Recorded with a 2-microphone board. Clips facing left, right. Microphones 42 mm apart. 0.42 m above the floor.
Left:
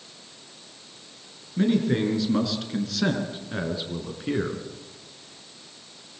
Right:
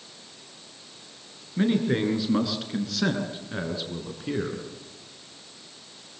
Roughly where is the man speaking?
Centre.